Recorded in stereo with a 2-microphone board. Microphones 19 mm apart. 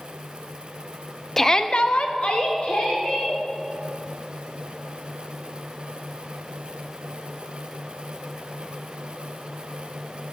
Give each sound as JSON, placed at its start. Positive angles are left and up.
{"t": 1.4, "sound": "a shout", "side_deg": 15, "distance_m": 0.5}